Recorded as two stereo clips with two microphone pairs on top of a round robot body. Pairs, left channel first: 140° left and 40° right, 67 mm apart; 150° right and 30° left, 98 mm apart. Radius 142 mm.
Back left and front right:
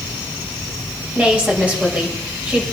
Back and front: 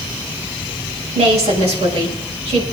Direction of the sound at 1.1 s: 30° left.